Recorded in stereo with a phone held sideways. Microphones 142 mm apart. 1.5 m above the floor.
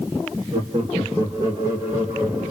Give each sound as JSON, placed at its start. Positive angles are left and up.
{"t": 0.5, "sound": "laughter", "side_deg": -35, "distance_m": 3.0}